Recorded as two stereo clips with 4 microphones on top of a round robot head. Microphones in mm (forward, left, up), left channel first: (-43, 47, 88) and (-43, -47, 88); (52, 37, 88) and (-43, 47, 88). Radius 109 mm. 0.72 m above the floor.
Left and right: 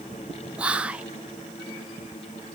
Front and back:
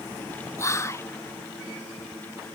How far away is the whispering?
About 0.5 m.